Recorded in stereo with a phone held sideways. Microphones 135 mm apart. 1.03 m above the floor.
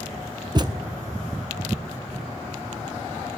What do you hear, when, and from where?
0.6 s a thud: 30° right (ahead or behind), 0.6 m